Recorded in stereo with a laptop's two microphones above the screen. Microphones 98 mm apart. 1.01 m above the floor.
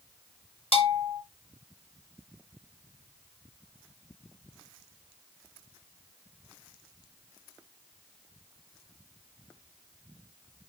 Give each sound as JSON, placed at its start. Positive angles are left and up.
{"t": 0.7, "sound": "a bell", "side_deg": 75, "distance_m": 3.0}